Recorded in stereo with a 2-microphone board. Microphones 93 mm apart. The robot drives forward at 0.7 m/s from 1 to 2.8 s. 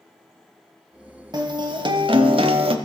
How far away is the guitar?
About 1.5 m.